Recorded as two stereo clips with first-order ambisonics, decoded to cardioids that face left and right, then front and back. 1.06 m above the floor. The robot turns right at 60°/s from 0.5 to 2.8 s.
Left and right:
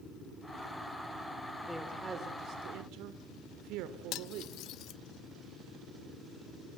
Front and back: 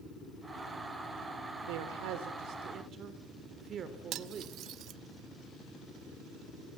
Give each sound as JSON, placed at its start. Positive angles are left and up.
{"t": 1.7, "sound": "a man speaking", "azimuth_deg": 170, "distance_m": 2.5}
{"t": 4.1, "sound": "cutlery clinking", "azimuth_deg": 130, "distance_m": 1.0}